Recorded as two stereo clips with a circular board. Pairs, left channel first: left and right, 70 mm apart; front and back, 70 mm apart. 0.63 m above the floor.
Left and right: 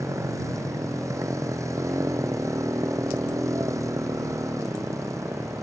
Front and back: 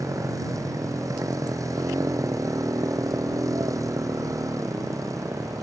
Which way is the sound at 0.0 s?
135° right.